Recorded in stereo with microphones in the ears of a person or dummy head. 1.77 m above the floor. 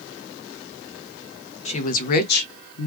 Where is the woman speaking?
30° left (ahead or behind), 0.8 m; by 2.9 s 70° left (ahead or behind), 0.8 m.